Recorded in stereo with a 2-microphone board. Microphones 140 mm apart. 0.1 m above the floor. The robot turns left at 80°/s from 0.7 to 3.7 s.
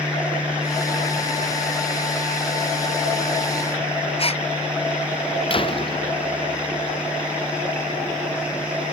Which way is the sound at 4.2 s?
45° left (ahead or behind).